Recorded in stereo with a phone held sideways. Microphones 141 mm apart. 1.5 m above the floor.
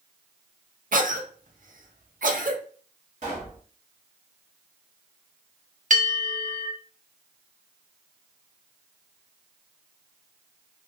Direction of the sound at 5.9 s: 60° right (ahead or behind).